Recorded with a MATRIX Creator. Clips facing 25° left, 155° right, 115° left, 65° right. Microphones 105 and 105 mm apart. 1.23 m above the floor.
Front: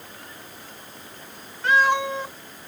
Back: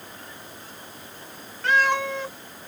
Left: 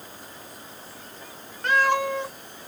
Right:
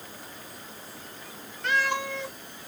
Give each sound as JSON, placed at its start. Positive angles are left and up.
{"t": 1.6, "sound": "a cat meowing", "azimuth_deg": 95, "distance_m": 1.4}